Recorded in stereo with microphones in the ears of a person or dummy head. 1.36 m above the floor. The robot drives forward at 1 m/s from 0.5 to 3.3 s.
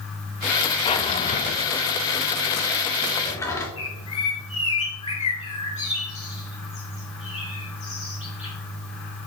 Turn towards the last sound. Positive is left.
turn(degrees=30)  # may be behind; listen again after turning